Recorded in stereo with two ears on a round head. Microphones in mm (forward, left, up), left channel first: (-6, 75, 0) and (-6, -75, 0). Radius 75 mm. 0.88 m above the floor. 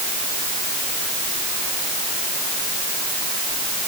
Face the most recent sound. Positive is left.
No sound to turn to.